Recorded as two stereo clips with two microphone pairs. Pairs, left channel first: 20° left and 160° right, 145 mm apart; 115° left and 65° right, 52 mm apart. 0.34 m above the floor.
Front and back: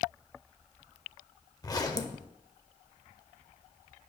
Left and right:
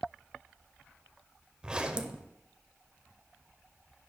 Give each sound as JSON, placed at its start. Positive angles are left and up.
{"t": 1.6, "sound": "a zipper", "azimuth_deg": -15, "distance_m": 0.8}